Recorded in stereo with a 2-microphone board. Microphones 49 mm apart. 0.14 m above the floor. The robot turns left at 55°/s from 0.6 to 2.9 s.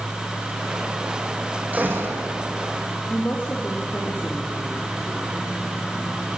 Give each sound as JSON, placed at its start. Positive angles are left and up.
{"t": 1.7, "sound": "a gunshot", "azimuth_deg": -35, "distance_m": 4.5}
{"t": 3.1, "sound": "a woman speaking", "side_deg": 40, "distance_m": 3.5}